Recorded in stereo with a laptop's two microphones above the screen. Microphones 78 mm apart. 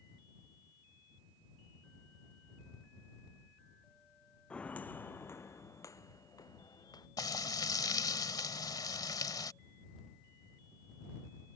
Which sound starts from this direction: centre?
Footsteps, at 4.5 s.